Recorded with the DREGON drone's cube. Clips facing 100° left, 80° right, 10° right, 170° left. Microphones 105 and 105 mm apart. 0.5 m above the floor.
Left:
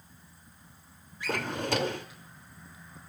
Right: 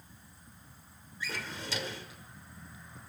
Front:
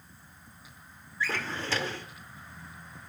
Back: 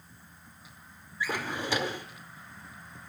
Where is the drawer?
95° left, 0.6 m.